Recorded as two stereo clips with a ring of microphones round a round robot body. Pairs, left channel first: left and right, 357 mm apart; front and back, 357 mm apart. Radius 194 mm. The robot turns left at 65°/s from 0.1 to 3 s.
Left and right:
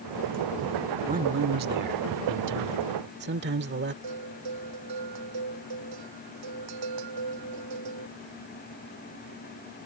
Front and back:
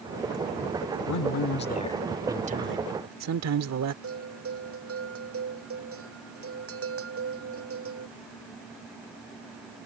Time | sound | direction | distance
1.1 | a man speaking | 20° right | ?
4.0 | a bell | 130° right | ?